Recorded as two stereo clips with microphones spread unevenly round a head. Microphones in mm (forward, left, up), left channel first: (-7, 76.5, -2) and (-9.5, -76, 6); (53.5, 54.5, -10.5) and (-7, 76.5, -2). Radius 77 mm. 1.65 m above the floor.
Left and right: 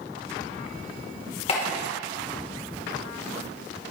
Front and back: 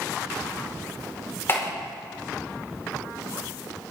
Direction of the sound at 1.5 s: 35° left.